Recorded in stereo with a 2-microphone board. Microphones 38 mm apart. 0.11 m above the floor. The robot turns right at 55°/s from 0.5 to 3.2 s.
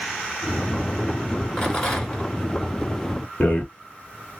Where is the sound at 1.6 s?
20° left (ahead or behind), 1.3 m; by 2.3 s 15° left (ahead or behind), 1.3 m.